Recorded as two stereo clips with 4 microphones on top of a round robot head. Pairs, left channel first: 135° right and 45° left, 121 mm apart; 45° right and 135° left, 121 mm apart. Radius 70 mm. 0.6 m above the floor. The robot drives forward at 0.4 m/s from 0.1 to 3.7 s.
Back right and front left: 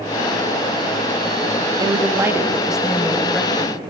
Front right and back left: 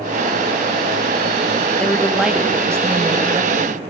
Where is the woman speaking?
30° left, 0.7 m; by 3.8 s 160° left, 0.8 m.